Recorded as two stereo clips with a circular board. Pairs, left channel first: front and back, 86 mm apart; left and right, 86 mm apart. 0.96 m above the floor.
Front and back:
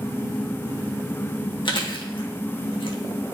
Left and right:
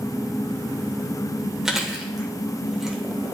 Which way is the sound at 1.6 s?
5° right.